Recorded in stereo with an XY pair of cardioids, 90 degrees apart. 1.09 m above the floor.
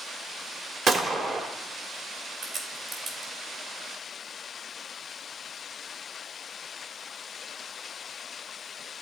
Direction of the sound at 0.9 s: 65° right.